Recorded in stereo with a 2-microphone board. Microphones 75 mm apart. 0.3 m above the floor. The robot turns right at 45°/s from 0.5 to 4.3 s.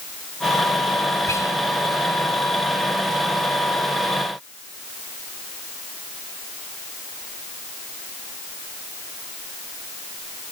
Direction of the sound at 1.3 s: 45° left (ahead or behind).